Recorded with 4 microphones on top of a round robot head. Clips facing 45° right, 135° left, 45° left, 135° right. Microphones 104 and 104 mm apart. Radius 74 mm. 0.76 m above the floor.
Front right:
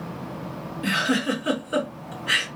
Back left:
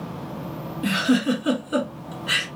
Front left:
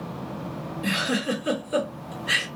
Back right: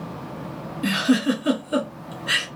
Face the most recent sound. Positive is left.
turn(degrees=-150)